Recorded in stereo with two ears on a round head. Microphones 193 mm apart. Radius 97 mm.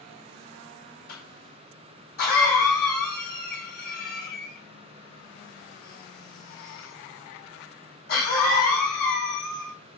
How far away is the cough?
About 4.5 m.